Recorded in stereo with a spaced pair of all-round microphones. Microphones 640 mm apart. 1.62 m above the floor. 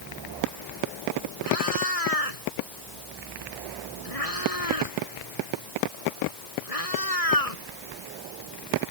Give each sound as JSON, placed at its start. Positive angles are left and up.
{"t": 1.4, "sound": "a cat meowing", "side_deg": 65}